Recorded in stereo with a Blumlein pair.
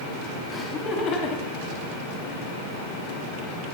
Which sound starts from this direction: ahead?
Laughter, at 0.5 s.